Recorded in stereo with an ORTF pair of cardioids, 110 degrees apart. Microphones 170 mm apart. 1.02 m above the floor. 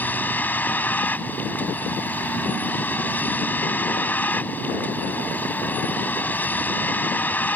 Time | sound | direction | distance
0.0 | a vehicle | 10° left | ?